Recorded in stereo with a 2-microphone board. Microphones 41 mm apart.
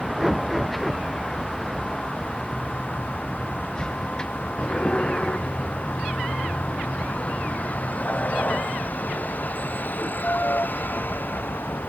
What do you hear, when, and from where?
0.0 s a vehicle: centre (ahead or behind); by 11.9 s 55° left (ahead or behind)